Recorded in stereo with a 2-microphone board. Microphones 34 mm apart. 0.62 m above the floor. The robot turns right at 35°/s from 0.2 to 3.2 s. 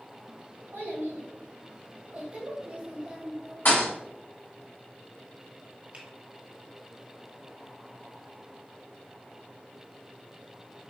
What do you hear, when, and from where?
0.7 s a child speaking: 105° right, 1.8 m; by 3.5 s 20° right, 1.8 m
3.6 s a thud: 75° left (ahead or behind), 2.5 m
5.9 s a finger snap: 35° right (ahead or behind), 1.3 m